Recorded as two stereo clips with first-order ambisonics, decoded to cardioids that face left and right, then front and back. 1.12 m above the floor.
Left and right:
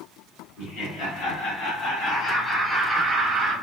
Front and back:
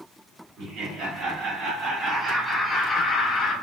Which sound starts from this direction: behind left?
Laughter, at 0.6 s.